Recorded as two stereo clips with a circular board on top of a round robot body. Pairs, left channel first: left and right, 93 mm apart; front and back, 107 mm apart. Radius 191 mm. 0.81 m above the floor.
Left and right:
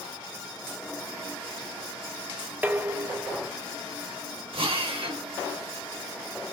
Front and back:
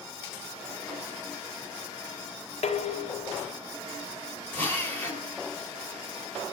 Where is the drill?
70° right, 3 m.